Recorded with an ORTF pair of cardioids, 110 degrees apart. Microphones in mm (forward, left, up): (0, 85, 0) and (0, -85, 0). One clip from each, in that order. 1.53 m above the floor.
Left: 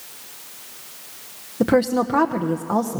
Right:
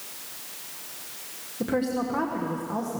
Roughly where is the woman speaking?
Ahead left.